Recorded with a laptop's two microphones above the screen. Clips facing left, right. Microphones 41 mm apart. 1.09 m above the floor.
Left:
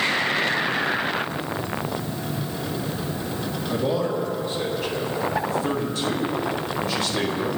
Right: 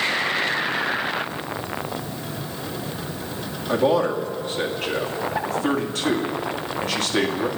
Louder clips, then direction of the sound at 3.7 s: Right 5 dB; 70° right (ahead or behind).